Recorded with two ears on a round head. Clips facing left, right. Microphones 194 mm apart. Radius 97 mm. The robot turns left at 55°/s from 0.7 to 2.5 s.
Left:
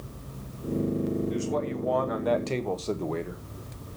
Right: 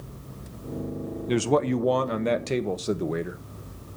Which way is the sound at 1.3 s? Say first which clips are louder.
Right 6 dB; 95° right.